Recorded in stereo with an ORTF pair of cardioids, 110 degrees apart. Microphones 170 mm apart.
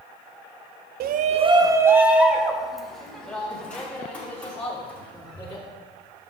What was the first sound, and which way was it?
A shout, 65° right.